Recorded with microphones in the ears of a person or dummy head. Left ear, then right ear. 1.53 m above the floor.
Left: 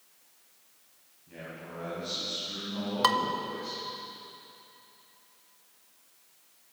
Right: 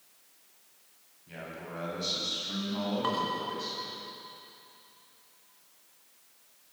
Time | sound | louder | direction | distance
1.3 | a man speaking | right 1 dB | 60° right (ahead or behind) | 8 m
3.0 | dishes clattering | left 8 dB | 60° left (ahead or behind) | 1.7 m